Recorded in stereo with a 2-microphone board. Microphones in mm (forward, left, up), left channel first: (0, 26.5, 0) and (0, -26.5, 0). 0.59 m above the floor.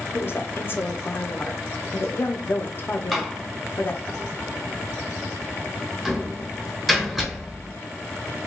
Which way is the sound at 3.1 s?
5° right (ahead or behind).